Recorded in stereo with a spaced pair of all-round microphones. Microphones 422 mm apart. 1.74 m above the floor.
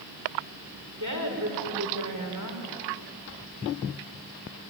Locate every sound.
1.0 s a woman speaking: 45° right (ahead or behind), 6.5 m